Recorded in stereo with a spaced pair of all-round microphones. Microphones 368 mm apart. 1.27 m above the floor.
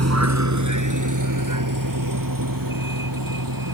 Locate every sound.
0.0 s a vehicle: 45° right (ahead or behind); by 3.7 s 65° right (ahead or behind)